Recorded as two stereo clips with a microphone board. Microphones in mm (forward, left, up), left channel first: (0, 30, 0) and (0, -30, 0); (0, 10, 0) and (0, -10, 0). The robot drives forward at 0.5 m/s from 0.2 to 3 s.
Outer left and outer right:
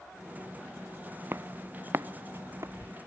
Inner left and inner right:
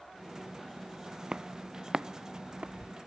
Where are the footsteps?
40° right (ahead or behind); by 3.0 s 50° right (ahead or behind).